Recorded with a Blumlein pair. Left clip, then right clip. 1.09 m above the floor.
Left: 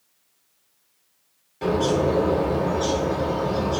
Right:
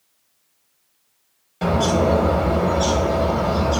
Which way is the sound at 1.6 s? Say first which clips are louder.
Right 2 dB; 25° right.